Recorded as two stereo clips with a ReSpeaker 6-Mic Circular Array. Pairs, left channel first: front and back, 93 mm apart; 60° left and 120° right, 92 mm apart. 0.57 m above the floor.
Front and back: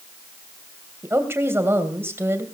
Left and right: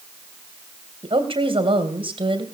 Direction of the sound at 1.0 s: 120° right.